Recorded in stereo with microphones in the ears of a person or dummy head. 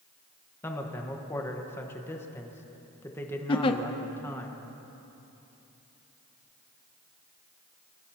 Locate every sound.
0.6 s a man speaking: 10° left (ahead or behind), 1.3 m
3.5 s a giggle: 30° left (ahead or behind), 0.7 m